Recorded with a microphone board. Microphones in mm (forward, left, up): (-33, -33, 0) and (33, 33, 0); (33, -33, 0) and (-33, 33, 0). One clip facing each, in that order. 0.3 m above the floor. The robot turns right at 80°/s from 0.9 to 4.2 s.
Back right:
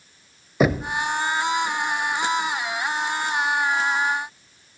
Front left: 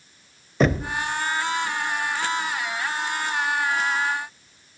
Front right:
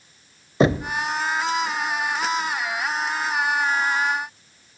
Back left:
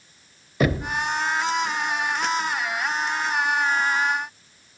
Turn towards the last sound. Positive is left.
turn(degrees=-160)